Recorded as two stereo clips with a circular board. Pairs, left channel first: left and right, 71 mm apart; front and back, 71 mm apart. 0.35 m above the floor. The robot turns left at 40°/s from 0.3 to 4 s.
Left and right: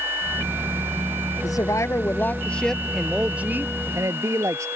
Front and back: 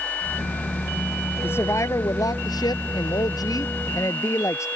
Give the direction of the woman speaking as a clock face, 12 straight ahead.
10 o'clock.